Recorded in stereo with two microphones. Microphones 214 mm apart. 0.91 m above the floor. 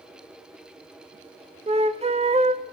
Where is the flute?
30° right (ahead or behind), 0.6 m.